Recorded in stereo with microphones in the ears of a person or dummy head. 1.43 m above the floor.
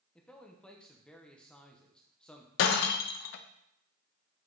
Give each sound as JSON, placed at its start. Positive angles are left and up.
{"t": 0.1, "sound": "a man speaking", "side_deg": 5, "distance_m": 1.0}
{"t": 2.6, "sound": "breaking glass", "side_deg": 50, "distance_m": 0.7}